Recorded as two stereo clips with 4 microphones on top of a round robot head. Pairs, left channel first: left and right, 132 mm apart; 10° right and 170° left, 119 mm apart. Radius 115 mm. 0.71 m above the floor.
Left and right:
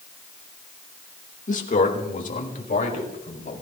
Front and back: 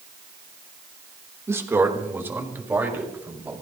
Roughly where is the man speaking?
Left.